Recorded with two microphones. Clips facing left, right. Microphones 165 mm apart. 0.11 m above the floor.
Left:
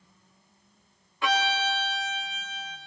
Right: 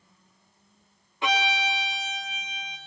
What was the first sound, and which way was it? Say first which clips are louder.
A violin: even; 20° right (ahead or behind).